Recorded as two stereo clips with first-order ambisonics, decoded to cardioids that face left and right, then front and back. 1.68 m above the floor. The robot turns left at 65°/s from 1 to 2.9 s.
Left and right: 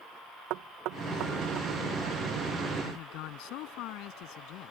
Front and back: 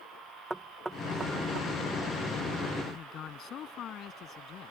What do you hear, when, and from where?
0.5 s knocking: 100° right; by 1.7 s 140° right
2.8 s a man speaking: 60° left; by 4.7 s 55° left